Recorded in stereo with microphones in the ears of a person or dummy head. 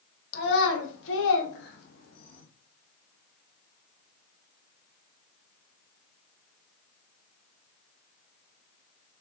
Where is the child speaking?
65° left (ahead or behind), 1.4 m; by 2.4 s 45° left (ahead or behind), 1.3 m.